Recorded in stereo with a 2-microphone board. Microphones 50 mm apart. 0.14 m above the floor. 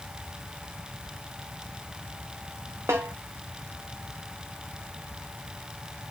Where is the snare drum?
75° right (ahead or behind), 3.5 m.